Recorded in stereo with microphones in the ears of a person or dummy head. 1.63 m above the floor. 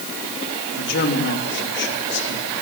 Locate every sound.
0.7 s a man speaking: 60° left (ahead or behind), 3 m